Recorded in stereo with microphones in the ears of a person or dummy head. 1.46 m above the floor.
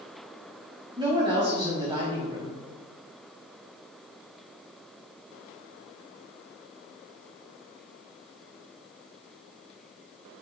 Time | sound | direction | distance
1.0 | a woman speaking | 20° right (ahead or behind) | 2.5 m